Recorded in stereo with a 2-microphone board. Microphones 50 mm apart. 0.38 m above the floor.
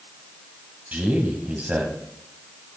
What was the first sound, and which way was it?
A man speaking, 30° right (ahead or behind).